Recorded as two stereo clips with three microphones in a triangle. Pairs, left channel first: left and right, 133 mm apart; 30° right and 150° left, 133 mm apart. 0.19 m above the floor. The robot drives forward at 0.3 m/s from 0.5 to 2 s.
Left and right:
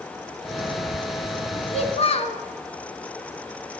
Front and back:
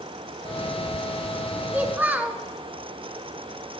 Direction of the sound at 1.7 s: 75° left.